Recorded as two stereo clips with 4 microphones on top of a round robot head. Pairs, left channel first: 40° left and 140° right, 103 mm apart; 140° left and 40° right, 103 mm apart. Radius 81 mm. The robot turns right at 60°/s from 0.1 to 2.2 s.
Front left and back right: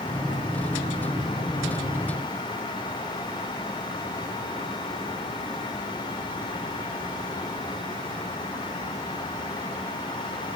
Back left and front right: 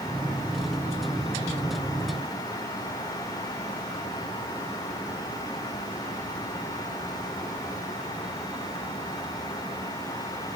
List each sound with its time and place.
Only background noise.